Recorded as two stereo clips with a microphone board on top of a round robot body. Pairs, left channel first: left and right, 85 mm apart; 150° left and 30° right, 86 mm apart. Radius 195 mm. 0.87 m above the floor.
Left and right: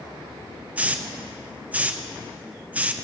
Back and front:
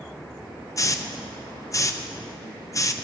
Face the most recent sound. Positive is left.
turn(degrees=-160)